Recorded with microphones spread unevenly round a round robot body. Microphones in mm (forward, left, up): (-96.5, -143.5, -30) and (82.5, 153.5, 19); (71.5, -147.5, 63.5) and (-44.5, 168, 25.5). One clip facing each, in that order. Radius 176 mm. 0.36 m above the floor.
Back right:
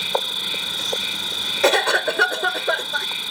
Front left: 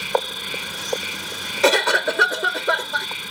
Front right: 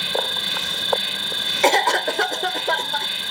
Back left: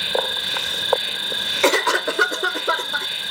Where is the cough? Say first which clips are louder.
Even, back left 1 dB; 160° left.